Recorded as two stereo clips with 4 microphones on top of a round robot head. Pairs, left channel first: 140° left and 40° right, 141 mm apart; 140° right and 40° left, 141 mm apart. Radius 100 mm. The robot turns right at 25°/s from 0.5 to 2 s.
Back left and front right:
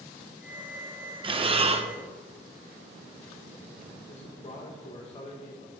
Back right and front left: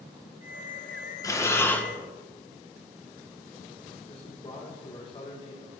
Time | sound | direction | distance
1.2 | breathing | 80° right | 0.9 m
4.1 | a man speaking | 175° left | 1.2 m